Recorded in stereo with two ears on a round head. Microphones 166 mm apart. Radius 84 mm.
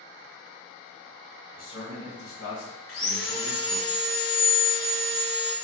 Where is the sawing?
75° left (ahead or behind), 1.3 m.